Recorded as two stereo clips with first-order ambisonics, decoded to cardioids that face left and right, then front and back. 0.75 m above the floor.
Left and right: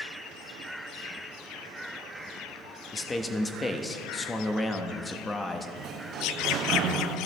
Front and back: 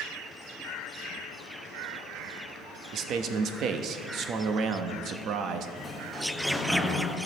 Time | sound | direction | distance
2.9 | a man speaking | 160° left | 0.6 m
5.8 | a sliding door | 80° right | 0.6 m